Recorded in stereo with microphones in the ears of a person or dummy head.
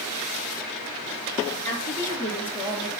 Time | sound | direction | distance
1.6 | a woman speaking | 15° left (ahead or behind) | 3 m